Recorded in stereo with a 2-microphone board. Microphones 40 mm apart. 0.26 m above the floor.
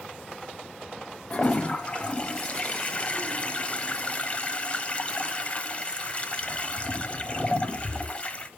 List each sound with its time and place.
1.3 s a toilet flushing: 30° left (ahead or behind), 0.9 m